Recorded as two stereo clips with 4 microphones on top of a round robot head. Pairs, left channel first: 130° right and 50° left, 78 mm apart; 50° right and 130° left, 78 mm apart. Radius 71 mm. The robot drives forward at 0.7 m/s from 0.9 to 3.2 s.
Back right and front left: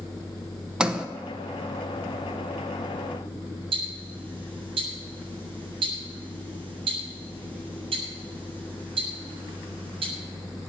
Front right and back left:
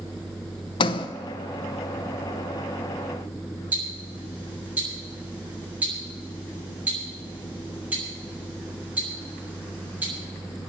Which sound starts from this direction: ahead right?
A sliding door, at 0.8 s.